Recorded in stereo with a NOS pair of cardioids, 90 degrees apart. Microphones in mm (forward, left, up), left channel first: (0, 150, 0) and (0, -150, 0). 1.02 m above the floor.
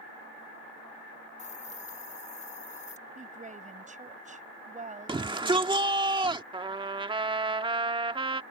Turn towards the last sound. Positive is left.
turn(degrees=-15)